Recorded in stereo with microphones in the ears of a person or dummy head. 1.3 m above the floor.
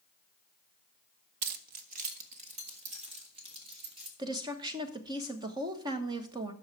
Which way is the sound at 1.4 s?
55° right (ahead or behind).